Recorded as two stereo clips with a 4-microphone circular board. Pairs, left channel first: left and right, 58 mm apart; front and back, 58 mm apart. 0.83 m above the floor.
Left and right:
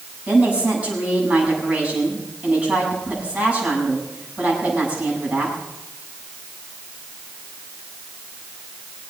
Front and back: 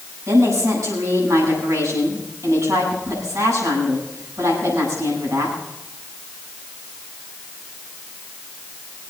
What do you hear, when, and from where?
0.3 s a woman speaking: 155° right, 7.5 m